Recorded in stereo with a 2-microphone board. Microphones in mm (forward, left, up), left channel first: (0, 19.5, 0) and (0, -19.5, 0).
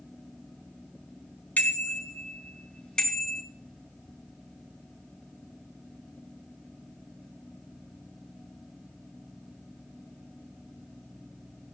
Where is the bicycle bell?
40° left (ahead or behind), 3.5 m; by 3.4 s 5° left (ahead or behind), 3.5 m.